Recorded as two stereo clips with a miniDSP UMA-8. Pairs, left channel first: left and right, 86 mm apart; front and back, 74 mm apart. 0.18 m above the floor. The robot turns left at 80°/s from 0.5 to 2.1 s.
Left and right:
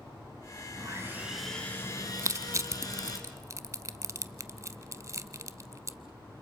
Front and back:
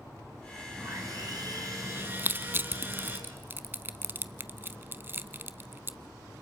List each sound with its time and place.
0.8 s sawing: 125° right, 3 m; by 3.2 s 125° left, 3 m
2.2 s crushing: 130° right, 0.6 m